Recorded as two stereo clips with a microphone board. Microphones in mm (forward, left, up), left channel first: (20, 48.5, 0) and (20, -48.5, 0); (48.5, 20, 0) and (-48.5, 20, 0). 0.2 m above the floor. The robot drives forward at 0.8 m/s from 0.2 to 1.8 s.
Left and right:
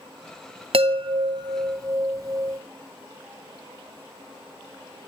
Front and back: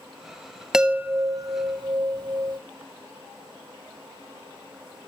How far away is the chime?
About 0.8 m.